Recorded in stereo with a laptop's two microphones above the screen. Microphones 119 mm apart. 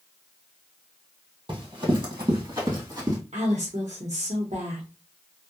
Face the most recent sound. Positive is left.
turn(degrees=-75)  # may be behind; listen again after turning